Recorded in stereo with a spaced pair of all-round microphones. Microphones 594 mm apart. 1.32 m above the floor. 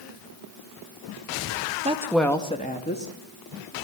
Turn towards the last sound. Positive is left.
turn(degrees=25)  # may be behind; listen again after turning